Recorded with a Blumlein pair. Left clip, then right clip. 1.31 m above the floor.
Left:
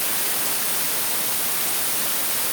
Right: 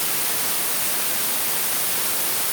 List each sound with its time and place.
Only background noise.